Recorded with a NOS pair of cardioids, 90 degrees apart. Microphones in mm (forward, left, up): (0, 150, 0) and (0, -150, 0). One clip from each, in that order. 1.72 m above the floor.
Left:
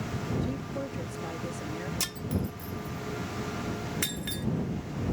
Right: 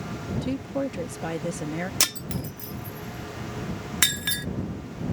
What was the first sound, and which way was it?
A woman speaking, 65° right.